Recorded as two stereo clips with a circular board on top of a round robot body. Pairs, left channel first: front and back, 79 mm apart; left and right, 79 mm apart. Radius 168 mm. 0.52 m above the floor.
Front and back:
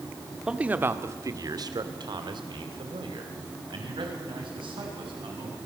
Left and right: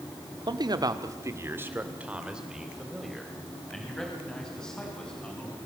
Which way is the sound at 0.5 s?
100° right.